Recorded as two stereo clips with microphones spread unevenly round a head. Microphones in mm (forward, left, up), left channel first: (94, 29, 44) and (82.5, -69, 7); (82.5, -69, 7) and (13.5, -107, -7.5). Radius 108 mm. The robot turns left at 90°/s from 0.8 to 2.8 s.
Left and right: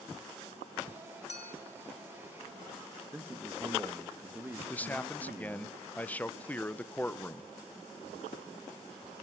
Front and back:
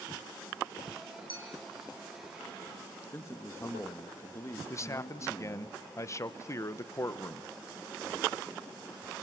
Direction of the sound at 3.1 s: 30° right.